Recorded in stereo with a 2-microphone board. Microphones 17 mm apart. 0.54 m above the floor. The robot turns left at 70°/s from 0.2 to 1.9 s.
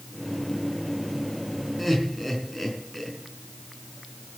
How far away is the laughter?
About 4.5 m.